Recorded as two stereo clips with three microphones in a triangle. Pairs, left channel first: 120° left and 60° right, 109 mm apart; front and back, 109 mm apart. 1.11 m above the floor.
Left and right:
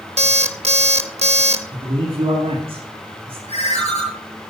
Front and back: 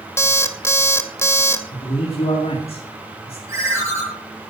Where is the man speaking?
25° right, 2.5 m.